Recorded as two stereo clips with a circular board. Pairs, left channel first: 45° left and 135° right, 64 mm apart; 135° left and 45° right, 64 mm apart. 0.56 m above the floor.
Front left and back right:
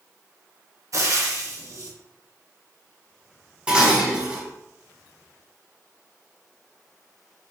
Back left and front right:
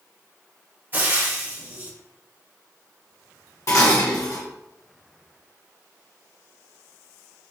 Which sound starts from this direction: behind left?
Dishes clattering, at 3.7 s.